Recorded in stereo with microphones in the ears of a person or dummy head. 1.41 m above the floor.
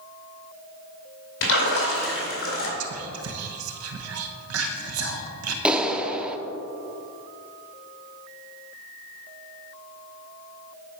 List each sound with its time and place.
1.4 s a splash: 70° left (ahead or behind), 2 m
2.8 s whispering: 80° right, 1.0 m
5.7 s a clap: centre (ahead or behind), 0.6 m